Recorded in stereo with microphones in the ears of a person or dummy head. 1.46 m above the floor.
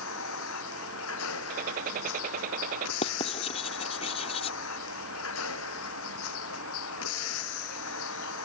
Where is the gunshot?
45° right (ahead or behind).